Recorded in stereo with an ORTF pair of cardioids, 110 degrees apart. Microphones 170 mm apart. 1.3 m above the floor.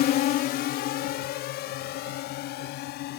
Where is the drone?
70° left; by 3.2 s 75° left.